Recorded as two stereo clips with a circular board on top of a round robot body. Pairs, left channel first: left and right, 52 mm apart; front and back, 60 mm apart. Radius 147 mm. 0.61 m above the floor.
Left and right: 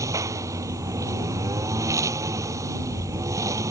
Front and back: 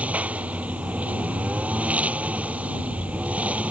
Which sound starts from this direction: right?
A lawn mower, at 0.0 s.